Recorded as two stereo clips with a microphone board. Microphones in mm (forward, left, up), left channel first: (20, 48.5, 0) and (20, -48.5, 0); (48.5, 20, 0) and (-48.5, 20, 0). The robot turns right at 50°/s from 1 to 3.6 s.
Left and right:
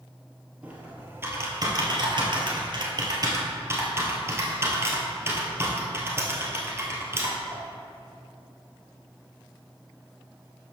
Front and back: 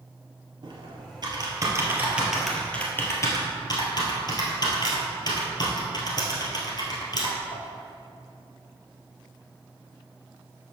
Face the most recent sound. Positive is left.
turn(degrees=-30)